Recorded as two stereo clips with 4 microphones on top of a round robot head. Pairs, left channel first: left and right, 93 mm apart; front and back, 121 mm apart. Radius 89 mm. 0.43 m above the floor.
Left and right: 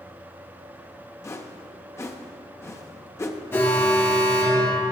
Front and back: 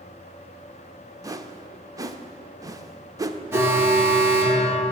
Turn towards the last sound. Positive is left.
turn(degrees=130)